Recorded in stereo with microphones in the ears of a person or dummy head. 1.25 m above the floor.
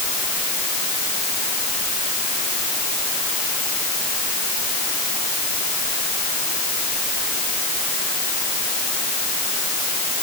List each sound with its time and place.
Only background noise.